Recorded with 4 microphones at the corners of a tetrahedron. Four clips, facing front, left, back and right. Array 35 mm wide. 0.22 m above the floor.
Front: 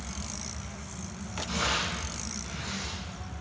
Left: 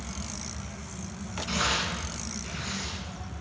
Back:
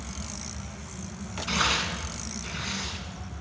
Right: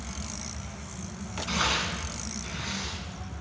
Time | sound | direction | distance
1.5 | tearing paper | 165° right | 1.6 m